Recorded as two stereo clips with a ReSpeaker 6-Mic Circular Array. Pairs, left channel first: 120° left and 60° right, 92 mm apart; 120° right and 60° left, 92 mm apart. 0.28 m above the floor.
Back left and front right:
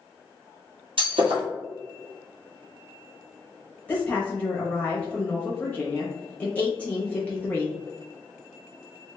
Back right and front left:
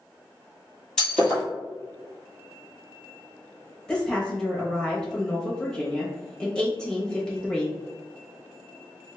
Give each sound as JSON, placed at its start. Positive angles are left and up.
{"t": 1.0, "sound": "breaking glass", "azimuth_deg": -35, "distance_m": 1.6}
{"t": 3.9, "sound": "a woman speaking", "azimuth_deg": 170, "distance_m": 0.9}